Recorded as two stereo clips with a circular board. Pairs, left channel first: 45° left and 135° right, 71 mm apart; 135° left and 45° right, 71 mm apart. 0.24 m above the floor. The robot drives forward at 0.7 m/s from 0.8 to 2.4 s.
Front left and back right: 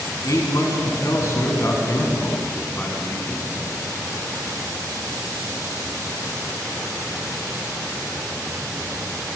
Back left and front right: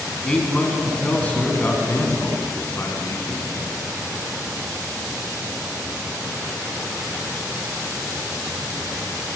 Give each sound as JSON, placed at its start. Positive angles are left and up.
{"t": 0.2, "sound": "a man speaking", "azimuth_deg": 60, "distance_m": 2.5}